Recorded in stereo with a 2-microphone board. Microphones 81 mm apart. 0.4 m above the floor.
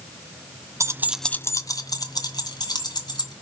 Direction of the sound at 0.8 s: 40° right (ahead or behind).